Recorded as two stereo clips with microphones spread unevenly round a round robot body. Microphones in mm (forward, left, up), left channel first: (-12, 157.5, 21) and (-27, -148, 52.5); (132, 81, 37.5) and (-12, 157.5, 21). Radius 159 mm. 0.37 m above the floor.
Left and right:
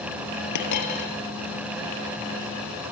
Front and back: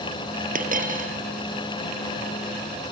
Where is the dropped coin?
120° left, 4.5 m.